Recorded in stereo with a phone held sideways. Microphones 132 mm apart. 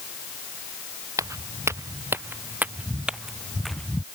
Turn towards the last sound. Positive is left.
turn(degrees=10)  # may be behind; listen again after turning